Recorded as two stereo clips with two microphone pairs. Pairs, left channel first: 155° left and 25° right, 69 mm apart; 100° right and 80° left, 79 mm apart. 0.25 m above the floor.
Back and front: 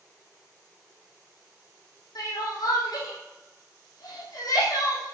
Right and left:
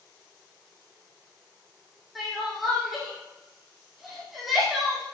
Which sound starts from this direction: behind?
Crying, at 2.1 s.